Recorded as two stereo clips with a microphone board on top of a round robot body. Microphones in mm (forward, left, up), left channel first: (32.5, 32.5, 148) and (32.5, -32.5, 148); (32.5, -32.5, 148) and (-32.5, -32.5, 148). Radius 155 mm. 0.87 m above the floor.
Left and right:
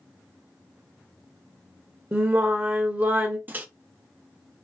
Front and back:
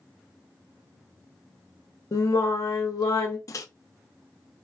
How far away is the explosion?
I don't hear an explosion.